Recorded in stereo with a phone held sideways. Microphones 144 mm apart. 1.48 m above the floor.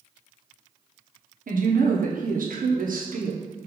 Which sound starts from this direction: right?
A woman speaking, at 1.5 s.